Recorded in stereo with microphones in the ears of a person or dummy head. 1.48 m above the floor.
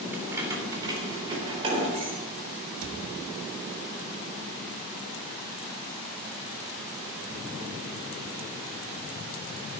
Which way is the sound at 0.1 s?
10° right (ahead or behind).